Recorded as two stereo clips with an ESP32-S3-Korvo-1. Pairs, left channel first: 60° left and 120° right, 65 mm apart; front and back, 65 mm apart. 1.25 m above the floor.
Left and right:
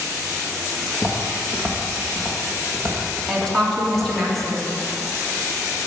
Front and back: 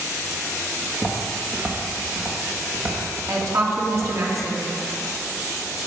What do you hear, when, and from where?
0.9 s footsteps: 125° left, 3 m; by 4.1 s 135° left, 4 m
3.3 s a woman speaking: 145° left, 3 m